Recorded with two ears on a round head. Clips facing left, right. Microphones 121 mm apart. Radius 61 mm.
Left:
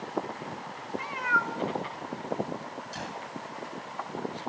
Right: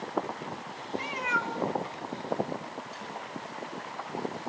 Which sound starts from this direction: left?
A gunshot, at 2.9 s.